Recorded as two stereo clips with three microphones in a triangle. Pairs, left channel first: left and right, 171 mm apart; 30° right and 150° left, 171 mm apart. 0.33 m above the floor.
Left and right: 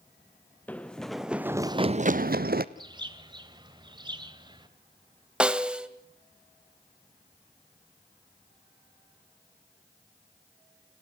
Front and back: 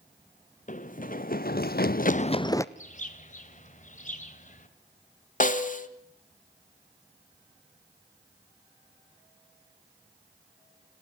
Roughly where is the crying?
I don't hear crying.